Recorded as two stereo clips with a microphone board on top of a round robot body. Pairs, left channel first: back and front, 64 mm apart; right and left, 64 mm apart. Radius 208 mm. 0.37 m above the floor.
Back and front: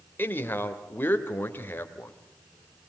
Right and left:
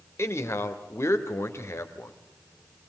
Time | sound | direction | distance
0.2 | a man speaking | 125° right | 2.5 m